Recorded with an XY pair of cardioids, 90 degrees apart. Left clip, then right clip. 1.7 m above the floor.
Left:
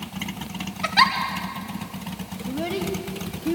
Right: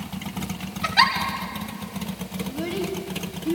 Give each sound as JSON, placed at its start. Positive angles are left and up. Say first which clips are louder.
{"t": 0.8, "sound": "a giggle", "louder": "even", "azimuth_deg": 20, "distance_m": 2.5}
{"t": 2.5, "sound": "a child speaking", "louder": "left 2 dB", "azimuth_deg": 40, "distance_m": 2.0}